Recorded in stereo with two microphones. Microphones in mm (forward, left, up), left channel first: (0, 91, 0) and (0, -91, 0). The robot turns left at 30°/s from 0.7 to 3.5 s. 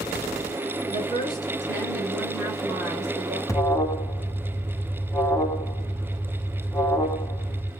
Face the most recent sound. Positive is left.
turn(degrees=15)  # may be behind; listen again after turning